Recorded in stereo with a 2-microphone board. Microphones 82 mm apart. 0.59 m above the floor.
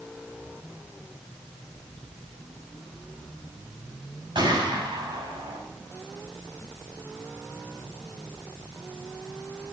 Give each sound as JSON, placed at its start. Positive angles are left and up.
{"t": 4.3, "sound": "a gunshot", "side_deg": -75, "distance_m": 4.5}